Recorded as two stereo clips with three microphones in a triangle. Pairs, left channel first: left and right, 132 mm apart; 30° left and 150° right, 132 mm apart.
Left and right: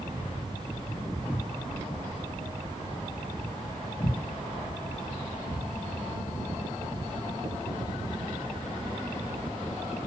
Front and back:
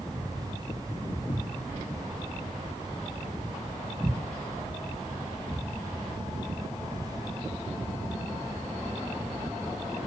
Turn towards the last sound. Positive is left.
turn(degrees=140)